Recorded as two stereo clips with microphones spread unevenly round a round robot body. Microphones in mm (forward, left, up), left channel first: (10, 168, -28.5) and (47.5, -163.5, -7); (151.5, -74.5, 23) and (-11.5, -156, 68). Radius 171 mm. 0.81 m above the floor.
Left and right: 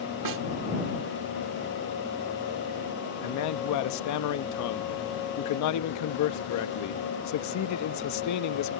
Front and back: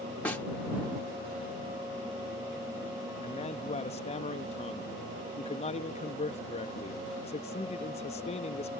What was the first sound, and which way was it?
A snare drum, 55° right.